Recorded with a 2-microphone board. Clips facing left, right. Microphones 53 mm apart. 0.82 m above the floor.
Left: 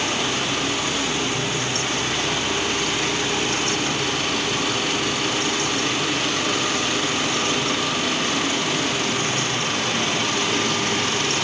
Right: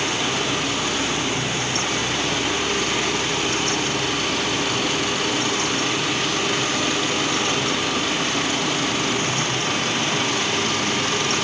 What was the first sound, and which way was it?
Only background noise.